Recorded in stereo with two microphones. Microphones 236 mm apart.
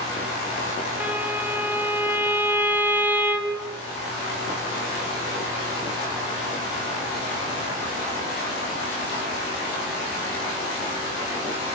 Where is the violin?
10° right (ahead or behind), 2.5 m.